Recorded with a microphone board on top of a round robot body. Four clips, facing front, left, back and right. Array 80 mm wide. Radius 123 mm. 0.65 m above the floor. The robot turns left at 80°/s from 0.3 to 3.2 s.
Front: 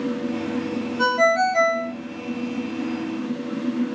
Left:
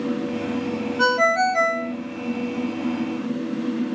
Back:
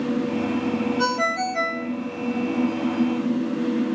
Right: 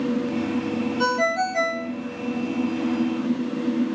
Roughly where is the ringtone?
Left.